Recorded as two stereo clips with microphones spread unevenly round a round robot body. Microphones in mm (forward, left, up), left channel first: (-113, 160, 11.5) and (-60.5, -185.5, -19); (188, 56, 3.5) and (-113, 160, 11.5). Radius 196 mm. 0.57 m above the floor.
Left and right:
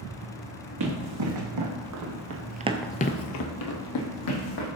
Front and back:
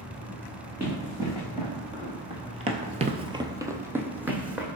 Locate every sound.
0.8 s running footsteps: 115° right, 2.5 m; by 4.7 s 75° left, 2.0 m